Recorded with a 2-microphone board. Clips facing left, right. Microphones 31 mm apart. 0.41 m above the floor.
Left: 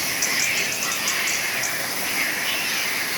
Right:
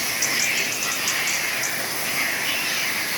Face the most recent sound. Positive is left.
No sound to turn to.